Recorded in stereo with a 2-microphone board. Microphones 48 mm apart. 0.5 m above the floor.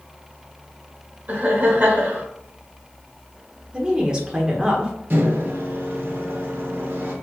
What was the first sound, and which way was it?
Laughter, 35° right (ahead or behind).